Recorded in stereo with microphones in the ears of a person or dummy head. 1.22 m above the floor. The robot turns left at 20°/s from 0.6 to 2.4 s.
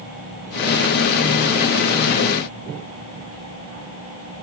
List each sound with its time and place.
Only background noise.